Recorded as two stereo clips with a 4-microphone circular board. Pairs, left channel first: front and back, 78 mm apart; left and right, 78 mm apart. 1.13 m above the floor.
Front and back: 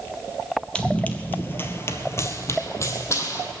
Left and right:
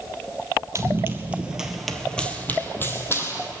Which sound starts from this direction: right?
Running footsteps, at 0.8 s.